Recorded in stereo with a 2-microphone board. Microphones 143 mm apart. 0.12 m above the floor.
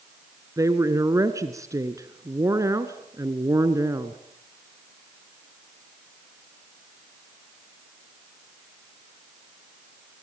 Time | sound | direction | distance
0.6 | a woman speaking | 25° right (ahead or behind) | 1.2 m